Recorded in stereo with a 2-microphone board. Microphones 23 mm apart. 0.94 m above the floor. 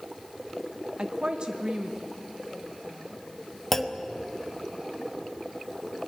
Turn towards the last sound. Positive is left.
turn(degrees=15)  # may be behind; listen again after turning